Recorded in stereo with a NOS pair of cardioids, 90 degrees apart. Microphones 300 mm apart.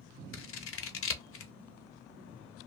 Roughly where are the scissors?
Ahead left.